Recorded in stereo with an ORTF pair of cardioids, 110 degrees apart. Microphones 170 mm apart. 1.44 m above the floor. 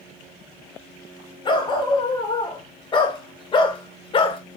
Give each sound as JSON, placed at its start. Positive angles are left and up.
{"t": 1.4, "sound": "a dog barking", "azimuth_deg": 30, "distance_m": 3.0}